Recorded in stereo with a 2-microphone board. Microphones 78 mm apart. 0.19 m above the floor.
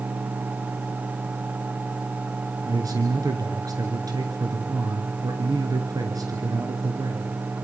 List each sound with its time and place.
2.6 s a man speaking: 50° right (ahead or behind), 2.5 m